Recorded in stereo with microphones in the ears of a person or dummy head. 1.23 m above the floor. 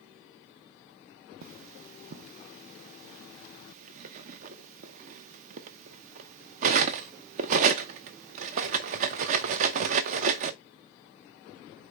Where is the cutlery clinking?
45° right (ahead or behind), 0.5 m.